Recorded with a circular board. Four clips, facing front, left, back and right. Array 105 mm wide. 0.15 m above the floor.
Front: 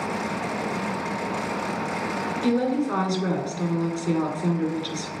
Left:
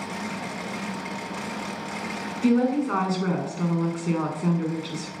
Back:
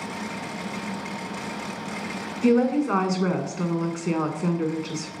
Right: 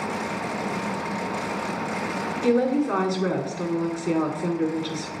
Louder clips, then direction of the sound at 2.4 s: Even, back 4 dB; 175° left.